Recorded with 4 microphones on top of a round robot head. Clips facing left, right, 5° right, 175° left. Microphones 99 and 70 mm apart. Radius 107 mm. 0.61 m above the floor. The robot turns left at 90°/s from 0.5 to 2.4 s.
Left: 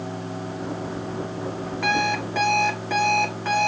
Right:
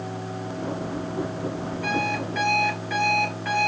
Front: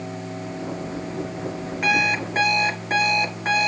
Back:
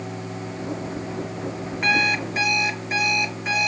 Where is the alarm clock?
85° left, 4 m; by 3.7 s 30° left, 4 m.